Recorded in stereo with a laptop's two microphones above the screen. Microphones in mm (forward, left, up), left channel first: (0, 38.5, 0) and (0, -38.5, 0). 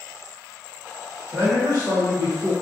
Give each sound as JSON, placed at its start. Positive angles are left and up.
{"t": 1.3, "sound": "a man speaking", "side_deg": -85, "distance_m": 1.9}